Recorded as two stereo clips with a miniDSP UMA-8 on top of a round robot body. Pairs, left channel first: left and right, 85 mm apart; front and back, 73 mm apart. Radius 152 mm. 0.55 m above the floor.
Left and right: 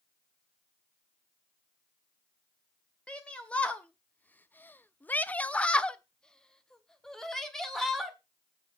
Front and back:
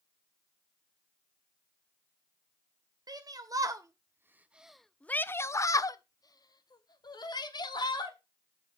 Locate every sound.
3.1 s a shout: 165° left, 1.1 m; by 8.2 s 5° left, 2.0 m